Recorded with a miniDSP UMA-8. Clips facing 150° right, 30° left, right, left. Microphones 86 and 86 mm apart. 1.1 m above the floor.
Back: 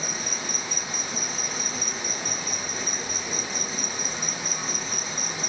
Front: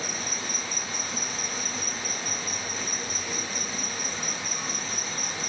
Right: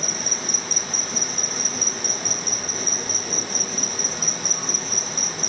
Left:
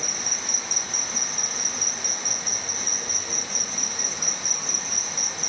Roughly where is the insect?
Right.